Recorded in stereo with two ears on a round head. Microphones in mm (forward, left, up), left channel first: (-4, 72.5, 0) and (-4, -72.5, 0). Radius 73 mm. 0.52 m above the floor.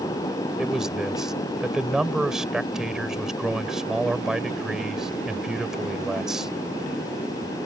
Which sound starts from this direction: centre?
A man speaking, at 0.6 s.